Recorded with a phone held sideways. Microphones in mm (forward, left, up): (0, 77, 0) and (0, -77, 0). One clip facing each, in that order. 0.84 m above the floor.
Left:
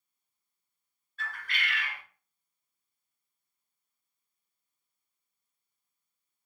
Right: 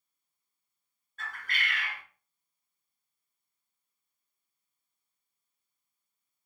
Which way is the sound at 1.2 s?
45° right (ahead or behind).